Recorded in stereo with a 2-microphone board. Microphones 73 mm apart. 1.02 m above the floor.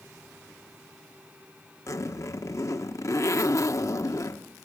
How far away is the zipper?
About 1.3 m.